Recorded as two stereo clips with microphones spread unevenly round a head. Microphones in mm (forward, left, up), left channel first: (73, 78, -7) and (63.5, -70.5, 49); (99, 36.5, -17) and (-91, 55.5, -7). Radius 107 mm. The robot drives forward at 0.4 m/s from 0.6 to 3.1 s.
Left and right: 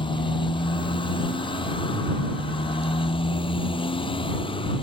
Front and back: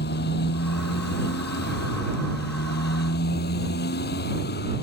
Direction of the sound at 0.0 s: 30° left.